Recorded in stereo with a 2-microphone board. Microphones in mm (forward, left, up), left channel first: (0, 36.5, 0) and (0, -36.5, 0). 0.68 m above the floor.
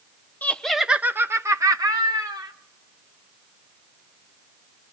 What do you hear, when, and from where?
0.4 s laughter: 20° left (ahead or behind), 0.7 m; by 2.5 s 70° right (ahead or behind), 1.5 m